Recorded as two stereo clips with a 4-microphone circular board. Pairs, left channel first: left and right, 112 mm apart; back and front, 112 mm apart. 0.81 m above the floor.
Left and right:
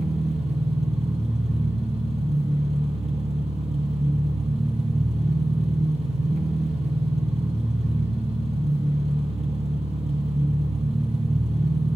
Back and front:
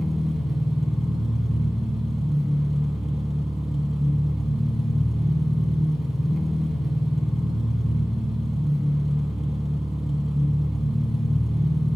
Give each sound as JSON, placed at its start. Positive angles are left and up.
{"t": 0.0, "sound": "an engine running", "azimuth_deg": -90, "distance_m": 1.5}